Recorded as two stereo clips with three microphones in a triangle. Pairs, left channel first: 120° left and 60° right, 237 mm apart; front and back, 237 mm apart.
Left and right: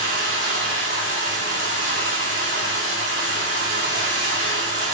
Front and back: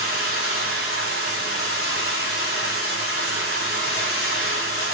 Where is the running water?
15° right, 2.5 m.